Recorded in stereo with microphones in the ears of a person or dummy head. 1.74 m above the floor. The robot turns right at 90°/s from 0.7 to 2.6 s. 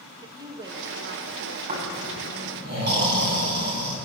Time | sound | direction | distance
0.2 | a woman speaking | 160° right | 1.7 m
1.7 | snoring | 145° right | 8.5 m